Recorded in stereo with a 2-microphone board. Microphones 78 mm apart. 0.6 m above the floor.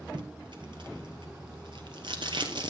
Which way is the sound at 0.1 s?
80° right.